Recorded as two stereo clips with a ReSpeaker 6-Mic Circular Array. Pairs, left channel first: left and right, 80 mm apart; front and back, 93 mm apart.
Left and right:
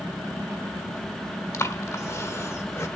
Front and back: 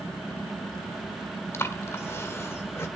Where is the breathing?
50° left, 1.3 m.